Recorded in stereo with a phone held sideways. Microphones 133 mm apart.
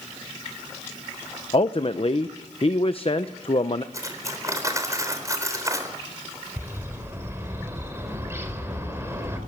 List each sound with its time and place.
1.5 s a man speaking: 45° left (ahead or behind), 0.7 m
3.9 s cutlery clinking: 25° right (ahead or behind), 3.5 m
6.6 s a bird: 20° right (ahead or behind), 4 m